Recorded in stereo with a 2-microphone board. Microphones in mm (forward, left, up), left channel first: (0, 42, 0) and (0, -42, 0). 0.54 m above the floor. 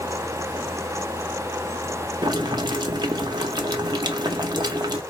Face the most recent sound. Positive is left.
turn(degrees=-50)  # may be behind; listen again after turning